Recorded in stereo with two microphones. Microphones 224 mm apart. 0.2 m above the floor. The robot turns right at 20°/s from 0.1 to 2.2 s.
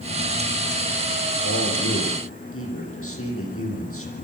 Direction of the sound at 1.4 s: 80° left.